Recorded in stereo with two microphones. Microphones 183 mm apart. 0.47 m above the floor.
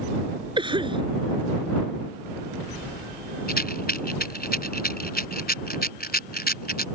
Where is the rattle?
55° left (ahead or behind).